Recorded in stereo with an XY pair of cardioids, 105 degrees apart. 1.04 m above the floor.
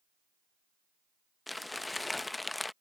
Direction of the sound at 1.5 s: 15° left.